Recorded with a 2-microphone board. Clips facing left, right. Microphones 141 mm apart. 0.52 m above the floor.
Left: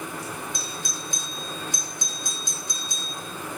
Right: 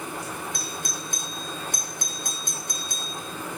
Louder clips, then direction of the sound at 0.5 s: Right 1 dB; 55° right (ahead or behind).